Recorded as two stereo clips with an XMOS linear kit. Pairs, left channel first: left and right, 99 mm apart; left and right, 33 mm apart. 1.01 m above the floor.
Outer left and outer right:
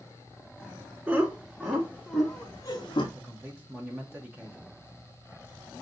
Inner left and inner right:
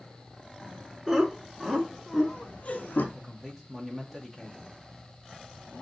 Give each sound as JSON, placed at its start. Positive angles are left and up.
{"t": 1.1, "sound": "laughter", "side_deg": -20, "distance_m": 2.5}
{"t": 3.1, "sound": "a man speaking", "side_deg": -15, "distance_m": 0.8}